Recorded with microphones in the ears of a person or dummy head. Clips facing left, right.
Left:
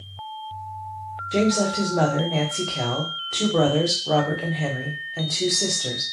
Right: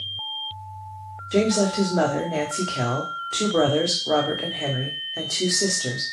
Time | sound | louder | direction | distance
1.3 | a woman speaking | right 1 dB | 10° right (ahead or behind) | 0.7 m